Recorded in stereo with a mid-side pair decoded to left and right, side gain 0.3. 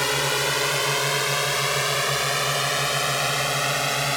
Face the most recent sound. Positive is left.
turn(degrees=5)